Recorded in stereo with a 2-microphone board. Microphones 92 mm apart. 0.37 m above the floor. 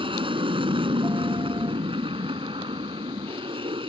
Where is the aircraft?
65° right (ahead or behind).